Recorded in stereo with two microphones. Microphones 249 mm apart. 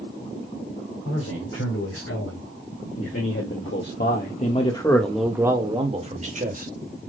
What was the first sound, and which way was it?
A man speaking, 70° left (ahead or behind).